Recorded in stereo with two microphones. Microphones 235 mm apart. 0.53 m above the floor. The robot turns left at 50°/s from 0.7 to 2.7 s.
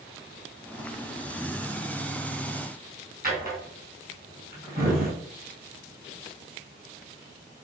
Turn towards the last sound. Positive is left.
turn(degrees=-40)  # may be behind; listen again after turning